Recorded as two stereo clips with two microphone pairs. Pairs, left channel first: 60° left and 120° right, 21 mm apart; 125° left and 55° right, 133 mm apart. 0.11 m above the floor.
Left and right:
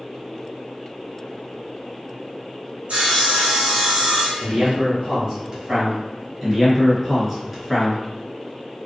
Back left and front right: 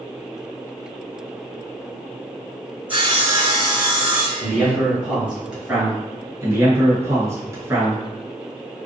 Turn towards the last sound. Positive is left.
turn(degrees=-55)